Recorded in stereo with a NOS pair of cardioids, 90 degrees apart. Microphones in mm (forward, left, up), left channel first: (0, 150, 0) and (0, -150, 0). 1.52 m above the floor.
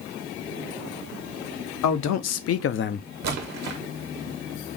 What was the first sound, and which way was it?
A man speaking, 70° left.